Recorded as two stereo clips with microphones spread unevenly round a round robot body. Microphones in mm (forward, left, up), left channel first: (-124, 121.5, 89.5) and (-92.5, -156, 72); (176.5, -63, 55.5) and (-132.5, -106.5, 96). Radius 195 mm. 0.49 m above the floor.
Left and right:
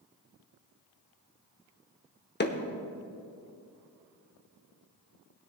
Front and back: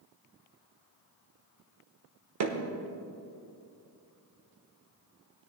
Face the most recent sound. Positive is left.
turn(degrees=150)